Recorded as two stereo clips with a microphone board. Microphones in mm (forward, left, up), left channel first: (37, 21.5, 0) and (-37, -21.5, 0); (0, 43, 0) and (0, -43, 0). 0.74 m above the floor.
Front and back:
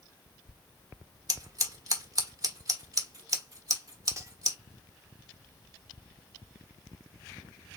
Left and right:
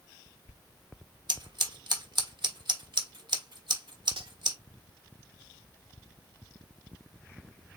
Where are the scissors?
110° right, 1.2 m.